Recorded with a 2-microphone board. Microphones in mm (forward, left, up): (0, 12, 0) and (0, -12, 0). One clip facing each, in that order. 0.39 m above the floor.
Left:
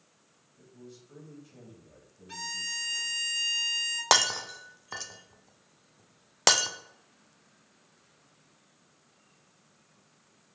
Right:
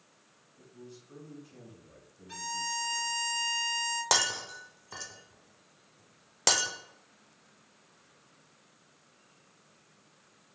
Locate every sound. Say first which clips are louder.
0.6 s a man speaking: even; 10° left (ahead or behind), 2.0 m
2.3 s a violin: even; 15° left (ahead or behind), 0.8 m
4.1 s breaking glass: left 5 dB; 25° left (ahead or behind), 0.5 m